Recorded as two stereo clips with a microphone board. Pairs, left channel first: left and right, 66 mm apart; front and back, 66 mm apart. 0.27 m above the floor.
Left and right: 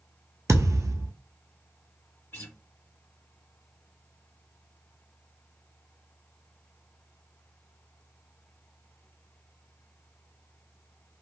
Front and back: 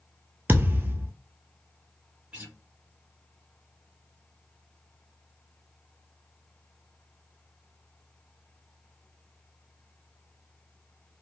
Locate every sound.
0.5 s a thud: 120° right, 0.6 m
2.3 s a guitar: 115° left, 1.3 m